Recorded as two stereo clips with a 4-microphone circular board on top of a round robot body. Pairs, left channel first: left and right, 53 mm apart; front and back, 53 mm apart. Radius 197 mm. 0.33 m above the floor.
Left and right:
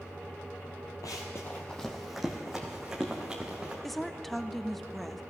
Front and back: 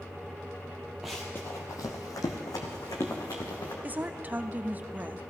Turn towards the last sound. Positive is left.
turn(degrees=175)